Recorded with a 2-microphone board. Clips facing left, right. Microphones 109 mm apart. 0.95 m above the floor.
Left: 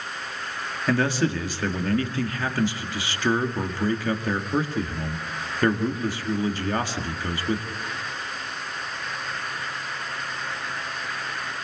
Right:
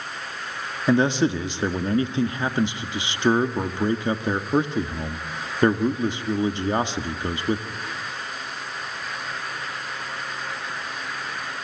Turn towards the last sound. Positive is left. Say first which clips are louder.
# right 4 dB
turn(degrees=-20)  # may be behind; listen again after turning